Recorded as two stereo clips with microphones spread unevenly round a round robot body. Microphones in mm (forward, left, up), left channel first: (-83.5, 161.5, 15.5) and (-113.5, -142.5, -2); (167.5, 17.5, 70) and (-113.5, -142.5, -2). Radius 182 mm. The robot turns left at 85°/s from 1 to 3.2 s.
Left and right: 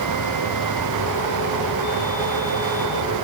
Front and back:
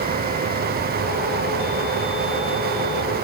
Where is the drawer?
No drawer in this recording.